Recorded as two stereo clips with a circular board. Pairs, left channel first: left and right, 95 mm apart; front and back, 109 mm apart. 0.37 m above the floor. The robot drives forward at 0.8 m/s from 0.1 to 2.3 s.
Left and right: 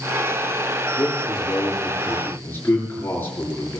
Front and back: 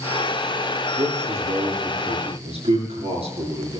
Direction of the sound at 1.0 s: 150° left.